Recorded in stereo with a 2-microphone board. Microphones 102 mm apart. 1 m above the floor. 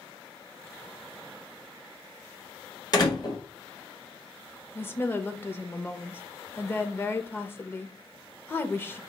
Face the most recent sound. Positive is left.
turn(degrees=20)  # may be behind; listen again after turning